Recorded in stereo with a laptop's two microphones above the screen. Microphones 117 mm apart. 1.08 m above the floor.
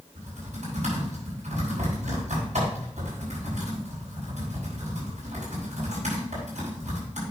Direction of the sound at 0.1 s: 80° right.